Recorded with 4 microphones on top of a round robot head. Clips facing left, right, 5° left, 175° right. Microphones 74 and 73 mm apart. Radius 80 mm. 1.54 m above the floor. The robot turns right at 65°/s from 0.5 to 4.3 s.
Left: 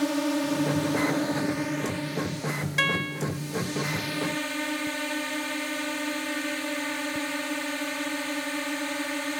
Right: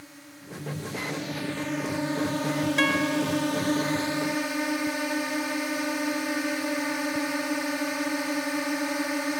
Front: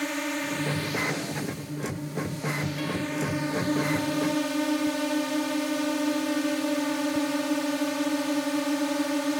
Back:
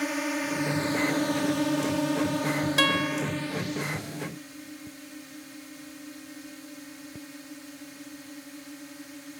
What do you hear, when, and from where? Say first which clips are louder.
0.0 s a drone: left 22 dB, even; 100° left; by 9.4 s 15° right
2.8 s a guitar: right 2 dB, back 4 dB; straight behind; by 3.2 s 150° right